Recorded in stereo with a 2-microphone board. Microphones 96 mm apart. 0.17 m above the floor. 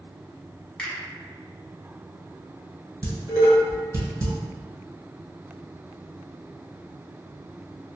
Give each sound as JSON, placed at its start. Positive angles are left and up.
{"t": 0.8, "sound": "a finger snap", "side_deg": 10, "distance_m": 1.0}
{"t": 3.0, "sound": "dishes clattering", "side_deg": -40, "distance_m": 1.6}